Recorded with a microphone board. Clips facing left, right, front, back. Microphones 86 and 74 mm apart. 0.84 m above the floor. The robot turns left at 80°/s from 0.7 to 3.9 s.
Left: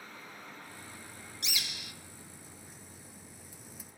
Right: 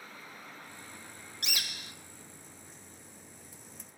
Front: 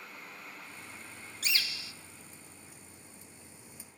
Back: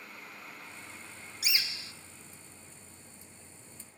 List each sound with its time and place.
1.4 s a bird: 100° right, 0.6 m; by 1.9 s 140° right, 0.6 m